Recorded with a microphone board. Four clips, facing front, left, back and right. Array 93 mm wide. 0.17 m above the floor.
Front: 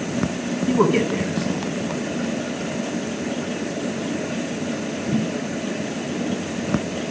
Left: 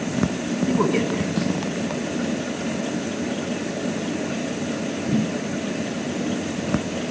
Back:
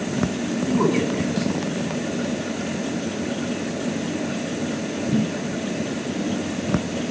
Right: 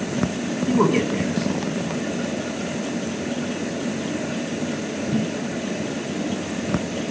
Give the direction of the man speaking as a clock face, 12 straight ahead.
1 o'clock.